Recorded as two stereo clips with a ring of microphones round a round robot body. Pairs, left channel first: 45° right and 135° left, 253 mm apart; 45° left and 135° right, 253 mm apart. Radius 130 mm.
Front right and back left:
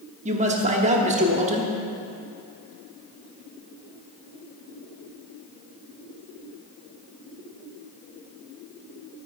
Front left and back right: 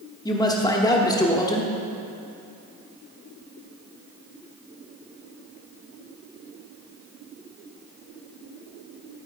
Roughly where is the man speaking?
Left.